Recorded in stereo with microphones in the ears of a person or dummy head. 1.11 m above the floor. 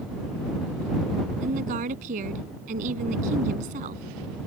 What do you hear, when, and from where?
1.4 s a woman speaking: 40° right (ahead or behind)